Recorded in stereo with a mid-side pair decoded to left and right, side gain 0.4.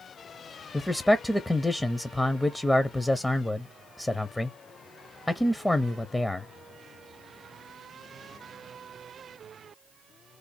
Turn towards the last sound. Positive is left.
turn(degrees=15)